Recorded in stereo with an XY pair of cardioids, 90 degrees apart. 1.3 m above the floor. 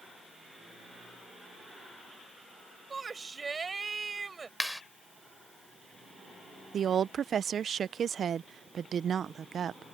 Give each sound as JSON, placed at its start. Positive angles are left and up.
{"t": 2.9, "sound": "a shout", "azimuth_deg": -35}
{"t": 4.6, "sound": "a clap", "azimuth_deg": 5}
{"t": 6.7, "sound": "a woman speaking", "azimuth_deg": -60}